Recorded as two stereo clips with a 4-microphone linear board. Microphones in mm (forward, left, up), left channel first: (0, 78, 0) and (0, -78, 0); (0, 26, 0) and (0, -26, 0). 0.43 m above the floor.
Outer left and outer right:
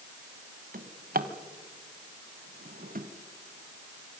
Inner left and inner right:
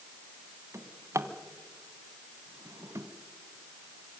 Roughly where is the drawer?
Right.